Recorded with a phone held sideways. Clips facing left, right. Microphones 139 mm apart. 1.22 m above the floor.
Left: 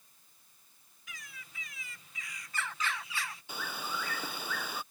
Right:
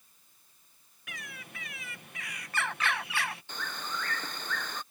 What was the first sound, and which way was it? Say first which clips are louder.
A bird: right 6 dB; 65° right (ahead or behind).